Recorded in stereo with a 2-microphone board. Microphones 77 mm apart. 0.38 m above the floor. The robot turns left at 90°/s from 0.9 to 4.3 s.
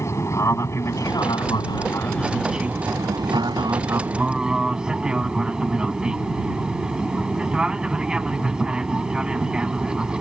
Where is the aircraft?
140° left; by 10.2 s 170° right.